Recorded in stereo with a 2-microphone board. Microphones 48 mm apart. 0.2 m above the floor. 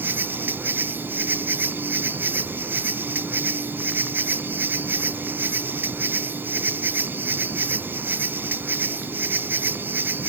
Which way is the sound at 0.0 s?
45° right (ahead or behind).